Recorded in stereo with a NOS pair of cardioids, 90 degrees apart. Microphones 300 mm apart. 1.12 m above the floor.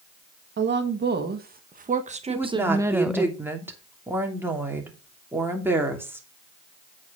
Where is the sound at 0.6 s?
40° right, 1.9 m; by 3.3 s 5° left, 0.8 m.